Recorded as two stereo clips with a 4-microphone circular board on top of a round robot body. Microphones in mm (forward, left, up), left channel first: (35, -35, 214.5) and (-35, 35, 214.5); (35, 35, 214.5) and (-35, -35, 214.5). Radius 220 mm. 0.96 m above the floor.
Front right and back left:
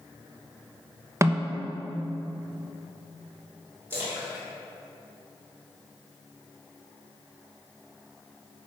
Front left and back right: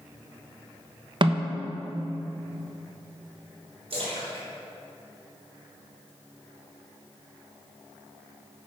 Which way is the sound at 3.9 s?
155° right.